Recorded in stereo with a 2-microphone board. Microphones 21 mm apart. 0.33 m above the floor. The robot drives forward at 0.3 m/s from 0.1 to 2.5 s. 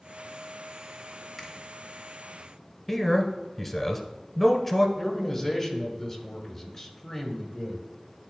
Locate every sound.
1.4 s a finger snap: 20° left (ahead or behind), 1.6 m
2.9 s a man speaking: 10° left (ahead or behind), 1.0 m
5.0 s a man speaking: 20° left (ahead or behind), 1.5 m